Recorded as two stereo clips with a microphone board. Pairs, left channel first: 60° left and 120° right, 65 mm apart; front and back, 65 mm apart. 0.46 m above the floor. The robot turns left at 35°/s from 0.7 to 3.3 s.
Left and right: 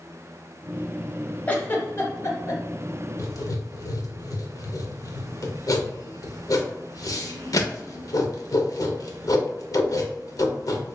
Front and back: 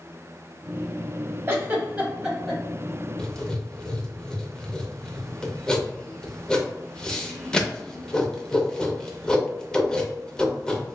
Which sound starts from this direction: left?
Writing, at 3.2 s.